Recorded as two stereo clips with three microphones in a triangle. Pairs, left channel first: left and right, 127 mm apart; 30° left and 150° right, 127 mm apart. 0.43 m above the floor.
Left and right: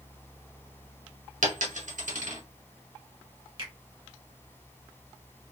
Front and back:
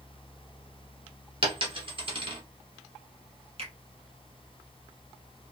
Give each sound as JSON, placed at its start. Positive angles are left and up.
{"t": 1.4, "sound": "a dropped coin", "azimuth_deg": -105, "distance_m": 1.1}
{"t": 3.6, "sound": "a finger snap", "azimuth_deg": -125, "distance_m": 1.5}